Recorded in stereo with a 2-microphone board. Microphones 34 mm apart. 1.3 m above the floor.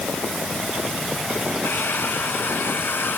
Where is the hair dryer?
80° left.